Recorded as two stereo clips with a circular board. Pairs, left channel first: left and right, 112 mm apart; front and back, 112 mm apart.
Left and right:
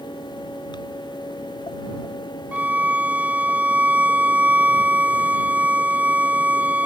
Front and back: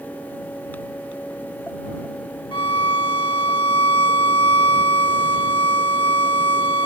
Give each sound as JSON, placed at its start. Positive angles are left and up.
{"t": 2.5, "sound": "a violin", "azimuth_deg": -20}